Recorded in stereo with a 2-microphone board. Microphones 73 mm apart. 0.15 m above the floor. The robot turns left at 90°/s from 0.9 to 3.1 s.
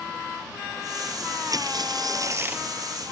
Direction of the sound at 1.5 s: 55° right.